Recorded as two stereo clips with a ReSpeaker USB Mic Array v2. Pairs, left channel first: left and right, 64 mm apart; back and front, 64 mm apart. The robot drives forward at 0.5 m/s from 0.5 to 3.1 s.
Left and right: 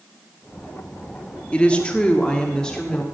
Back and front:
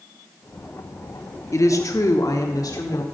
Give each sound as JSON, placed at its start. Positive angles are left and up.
{"t": 1.5, "sound": "a woman speaking", "azimuth_deg": 160, "distance_m": 0.8}